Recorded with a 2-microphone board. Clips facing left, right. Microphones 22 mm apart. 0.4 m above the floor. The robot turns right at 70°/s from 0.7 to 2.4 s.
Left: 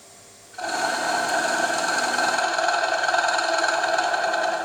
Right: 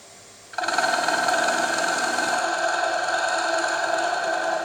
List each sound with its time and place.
0.5 s a rattle: 80° right, 1.8 m; by 4.6 s 40° left, 1.8 m